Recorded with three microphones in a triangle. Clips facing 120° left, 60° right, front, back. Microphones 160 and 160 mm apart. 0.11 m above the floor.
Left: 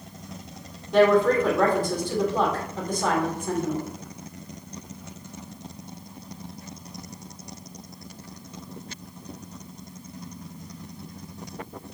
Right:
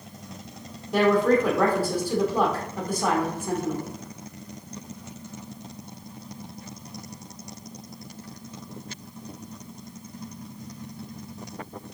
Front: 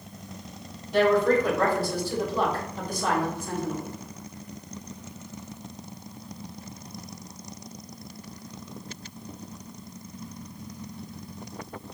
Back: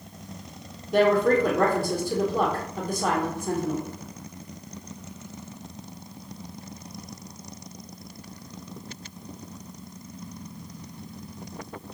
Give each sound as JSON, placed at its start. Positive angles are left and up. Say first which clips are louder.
{"t": 0.9, "sound": "a woman speaking", "louder": "left 2 dB, back 1 dB", "azimuth_deg": -140, "distance_m": 3.5}